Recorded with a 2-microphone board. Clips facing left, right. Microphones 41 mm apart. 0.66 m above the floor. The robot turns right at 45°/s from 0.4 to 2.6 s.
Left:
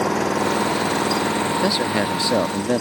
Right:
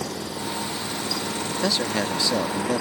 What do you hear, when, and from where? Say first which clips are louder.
0.0 s an engine running: left 11 dB; 95° left; by 2.8 s 165° right
1.6 s a man speaking: left 4 dB; 15° left; by 2.8 s 60° left